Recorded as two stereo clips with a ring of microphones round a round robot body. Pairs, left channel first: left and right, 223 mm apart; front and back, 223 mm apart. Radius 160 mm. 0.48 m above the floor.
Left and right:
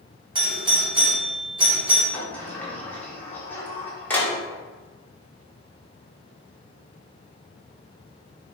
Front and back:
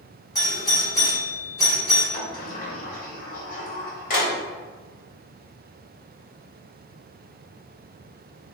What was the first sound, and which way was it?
A doorbell, 50° right.